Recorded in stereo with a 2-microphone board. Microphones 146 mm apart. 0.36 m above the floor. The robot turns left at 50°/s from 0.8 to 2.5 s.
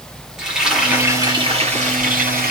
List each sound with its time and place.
0.4 s frying: 5° right, 7.5 m; by 2.5 s 90° right, 7.5 m